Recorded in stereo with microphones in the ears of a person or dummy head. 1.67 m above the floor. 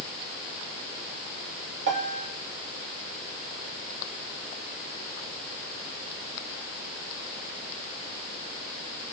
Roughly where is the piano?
Right.